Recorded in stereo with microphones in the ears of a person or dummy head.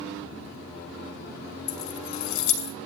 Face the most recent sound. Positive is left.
turn(degrees=75)  # may be behind; listen again after turning